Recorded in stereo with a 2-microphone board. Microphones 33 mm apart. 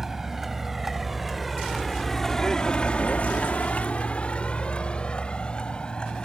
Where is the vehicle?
10° right (ahead or behind); by 6.2 s 30° left (ahead or behind).